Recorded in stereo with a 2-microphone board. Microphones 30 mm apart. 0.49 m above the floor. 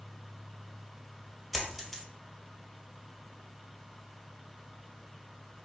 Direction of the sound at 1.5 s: Centre (ahead or behind).